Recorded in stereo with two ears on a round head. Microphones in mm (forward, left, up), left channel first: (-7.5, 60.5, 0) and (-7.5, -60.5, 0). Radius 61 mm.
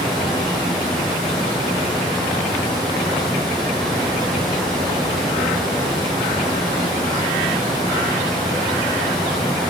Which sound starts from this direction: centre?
Running water, at 0.0 s.